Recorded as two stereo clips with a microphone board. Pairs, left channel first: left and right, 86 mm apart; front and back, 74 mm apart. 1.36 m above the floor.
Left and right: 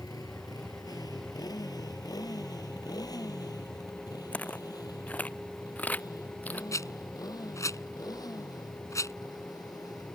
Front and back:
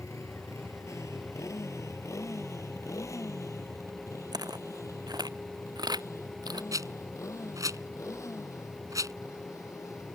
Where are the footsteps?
165° left; by 6.6 s 160° left.